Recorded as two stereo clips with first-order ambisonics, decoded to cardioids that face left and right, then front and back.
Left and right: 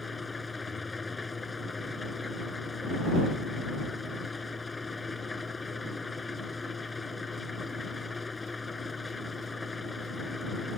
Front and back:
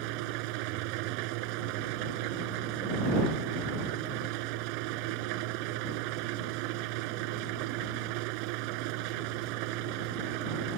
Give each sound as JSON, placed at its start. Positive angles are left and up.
{"t": 0.0, "sound": "an engine running", "azimuth_deg": 170}